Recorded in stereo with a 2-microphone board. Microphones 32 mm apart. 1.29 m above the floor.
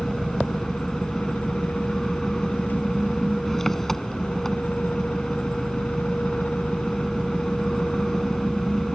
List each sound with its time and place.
0.0 s an engine running: 15° left (ahead or behind)